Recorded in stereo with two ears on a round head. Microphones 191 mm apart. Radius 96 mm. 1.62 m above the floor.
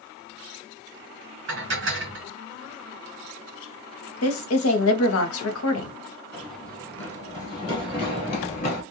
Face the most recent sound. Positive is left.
turn(degrees=35)  # may be behind; listen again after turning